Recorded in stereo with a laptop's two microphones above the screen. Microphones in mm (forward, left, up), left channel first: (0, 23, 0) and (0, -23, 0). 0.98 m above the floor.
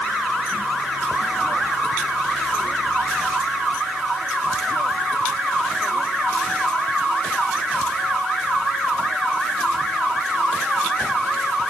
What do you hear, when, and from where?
Only background noise.